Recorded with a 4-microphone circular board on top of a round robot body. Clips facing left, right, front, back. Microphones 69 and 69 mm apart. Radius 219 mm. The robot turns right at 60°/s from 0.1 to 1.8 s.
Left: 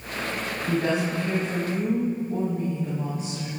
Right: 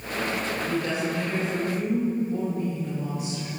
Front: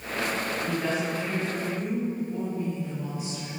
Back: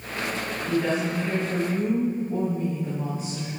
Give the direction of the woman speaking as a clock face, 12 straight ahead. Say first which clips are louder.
Left 5 dB, back 6 dB; 10 o'clock.